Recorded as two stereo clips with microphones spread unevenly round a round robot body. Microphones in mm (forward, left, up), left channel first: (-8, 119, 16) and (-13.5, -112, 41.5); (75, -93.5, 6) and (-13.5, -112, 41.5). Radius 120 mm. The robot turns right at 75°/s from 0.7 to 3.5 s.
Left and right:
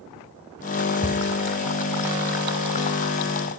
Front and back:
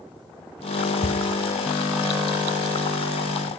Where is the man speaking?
No man speaking in this recording.